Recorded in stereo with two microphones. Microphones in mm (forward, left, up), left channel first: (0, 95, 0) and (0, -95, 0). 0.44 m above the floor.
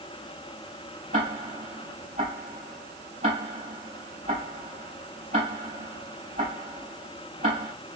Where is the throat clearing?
I don't hear throat clearing.